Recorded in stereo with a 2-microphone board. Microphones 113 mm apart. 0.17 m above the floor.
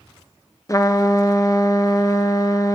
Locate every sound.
0.7 s a trumpet: 30° left (ahead or behind), 1.2 m